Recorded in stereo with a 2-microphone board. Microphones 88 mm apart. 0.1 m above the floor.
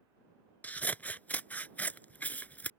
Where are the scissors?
20° left (ahead or behind).